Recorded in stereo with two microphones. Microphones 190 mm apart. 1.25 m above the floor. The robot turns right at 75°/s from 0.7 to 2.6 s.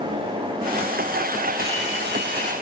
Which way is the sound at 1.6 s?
115° right.